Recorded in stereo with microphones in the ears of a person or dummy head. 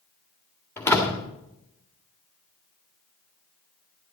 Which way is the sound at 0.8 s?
10° left (ahead or behind).